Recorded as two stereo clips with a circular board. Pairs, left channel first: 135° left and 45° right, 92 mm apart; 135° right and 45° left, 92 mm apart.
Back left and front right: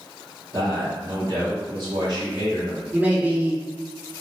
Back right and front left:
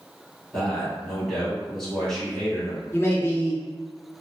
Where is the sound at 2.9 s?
100° right, 0.7 m.